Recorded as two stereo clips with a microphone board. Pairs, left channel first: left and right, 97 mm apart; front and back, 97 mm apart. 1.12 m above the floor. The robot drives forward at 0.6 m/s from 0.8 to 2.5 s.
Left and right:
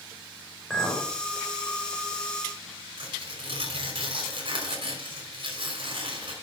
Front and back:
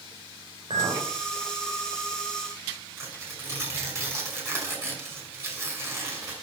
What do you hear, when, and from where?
0.7 s a clink: 175° left, 4 m
3.0 s tearing paper: 120° right, 5.5 m